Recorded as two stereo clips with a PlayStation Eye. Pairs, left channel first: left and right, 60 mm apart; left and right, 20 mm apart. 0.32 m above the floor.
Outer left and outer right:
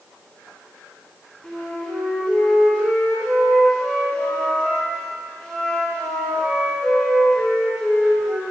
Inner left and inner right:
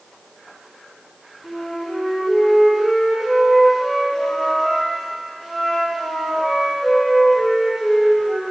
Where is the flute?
15° left (ahead or behind), 2.5 m.